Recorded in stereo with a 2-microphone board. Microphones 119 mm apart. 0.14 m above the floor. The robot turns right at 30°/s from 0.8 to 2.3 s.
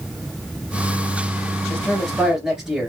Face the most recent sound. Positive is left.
turn(degrees=-5)  # may be behind; listen again after turning